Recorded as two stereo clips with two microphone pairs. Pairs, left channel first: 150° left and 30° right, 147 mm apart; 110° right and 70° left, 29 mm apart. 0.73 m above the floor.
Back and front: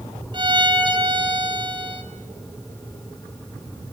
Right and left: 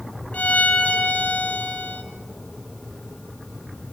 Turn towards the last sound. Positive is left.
turn(degrees=-85)